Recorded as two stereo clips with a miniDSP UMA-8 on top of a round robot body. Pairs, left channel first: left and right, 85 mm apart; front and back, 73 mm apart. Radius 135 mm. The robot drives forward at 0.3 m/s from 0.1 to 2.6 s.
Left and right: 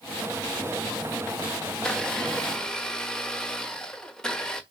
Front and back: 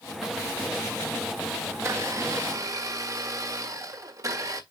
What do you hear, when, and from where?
1.7 s a blender: 165° left, 1.6 m; by 4.6 s 170° left, 1.8 m